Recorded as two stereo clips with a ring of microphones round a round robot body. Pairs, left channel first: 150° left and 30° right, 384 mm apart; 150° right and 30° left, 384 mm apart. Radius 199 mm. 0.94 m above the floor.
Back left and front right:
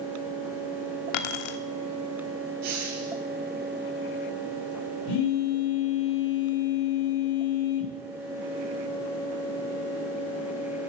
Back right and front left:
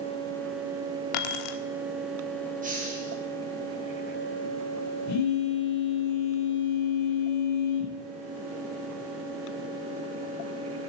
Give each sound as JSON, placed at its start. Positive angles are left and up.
{"t": 1.1, "sound": "keys jangling", "azimuth_deg": 175, "distance_m": 1.4}
{"t": 2.6, "sound": "a hiss", "azimuth_deg": -40, "distance_m": 4.5}
{"t": 5.1, "sound": "a phone buzzing", "azimuth_deg": 160, "distance_m": 2.5}